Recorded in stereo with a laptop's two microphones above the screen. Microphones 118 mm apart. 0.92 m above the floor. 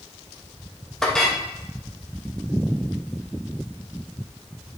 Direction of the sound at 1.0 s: 5° left (ahead or behind).